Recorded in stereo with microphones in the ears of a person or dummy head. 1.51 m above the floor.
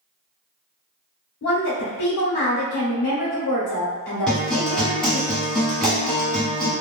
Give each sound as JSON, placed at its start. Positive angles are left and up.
{"t": 1.4, "sound": "a woman speaking", "side_deg": 75, "distance_m": 1.3}
{"t": 4.3, "sound": "a guitar", "side_deg": 5, "distance_m": 1.0}